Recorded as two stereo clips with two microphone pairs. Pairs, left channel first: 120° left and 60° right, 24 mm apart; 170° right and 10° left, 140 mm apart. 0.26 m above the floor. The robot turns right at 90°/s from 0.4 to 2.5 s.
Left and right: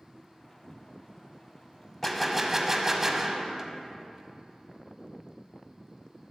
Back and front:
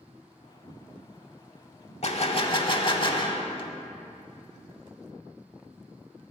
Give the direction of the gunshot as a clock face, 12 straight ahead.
6 o'clock.